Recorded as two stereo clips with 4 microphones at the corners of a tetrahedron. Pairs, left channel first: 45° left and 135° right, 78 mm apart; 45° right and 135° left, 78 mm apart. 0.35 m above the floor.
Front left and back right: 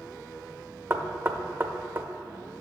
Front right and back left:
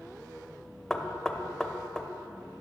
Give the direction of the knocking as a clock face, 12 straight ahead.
4 o'clock.